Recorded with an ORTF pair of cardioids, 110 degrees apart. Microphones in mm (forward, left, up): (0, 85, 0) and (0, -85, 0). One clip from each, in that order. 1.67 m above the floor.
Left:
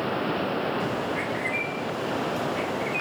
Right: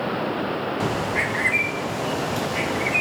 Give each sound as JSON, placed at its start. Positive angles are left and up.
{"t": 0.8, "sound": "a bird", "azimuth_deg": -45, "distance_m": 1.0}